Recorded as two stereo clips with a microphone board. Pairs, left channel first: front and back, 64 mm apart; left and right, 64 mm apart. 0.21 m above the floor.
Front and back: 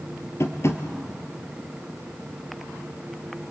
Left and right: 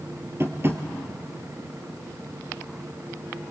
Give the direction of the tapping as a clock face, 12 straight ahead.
1 o'clock.